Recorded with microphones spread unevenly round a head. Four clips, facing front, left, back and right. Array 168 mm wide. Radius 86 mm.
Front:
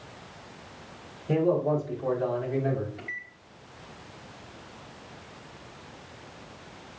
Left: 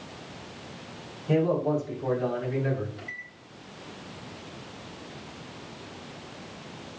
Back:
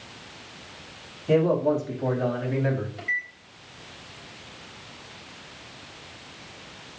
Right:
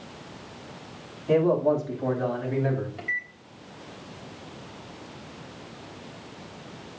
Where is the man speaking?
145° right, 6 m; by 2.9 s 155° right, 6.5 m.